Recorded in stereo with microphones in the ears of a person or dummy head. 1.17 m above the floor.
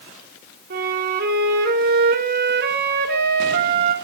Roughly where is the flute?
Right.